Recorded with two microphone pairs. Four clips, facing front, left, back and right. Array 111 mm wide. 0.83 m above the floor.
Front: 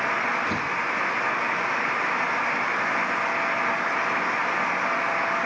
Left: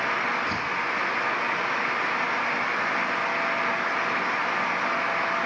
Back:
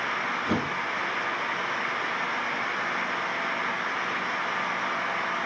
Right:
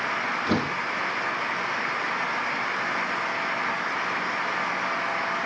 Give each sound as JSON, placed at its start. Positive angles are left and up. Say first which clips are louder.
{"t": 0.5, "sound": "a door slam", "louder": "right 3 dB, even", "azimuth_deg": -115}